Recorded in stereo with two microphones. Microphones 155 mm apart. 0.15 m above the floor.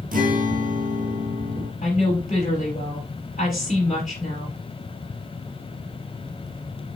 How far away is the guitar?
About 1.2 m.